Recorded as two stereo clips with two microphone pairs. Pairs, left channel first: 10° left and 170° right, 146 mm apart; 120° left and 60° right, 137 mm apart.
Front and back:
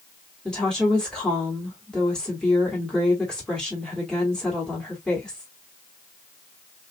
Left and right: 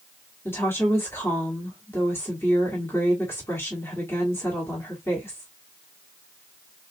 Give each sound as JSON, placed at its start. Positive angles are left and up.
{"t": 0.5, "sound": "a woman speaking", "azimuth_deg": 90, "distance_m": 1.3}